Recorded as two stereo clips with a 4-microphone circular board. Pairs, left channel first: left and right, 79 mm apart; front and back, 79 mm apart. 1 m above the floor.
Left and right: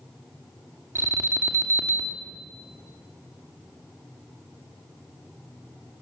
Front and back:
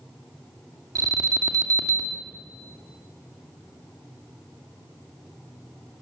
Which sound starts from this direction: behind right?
An alarm, at 0.9 s.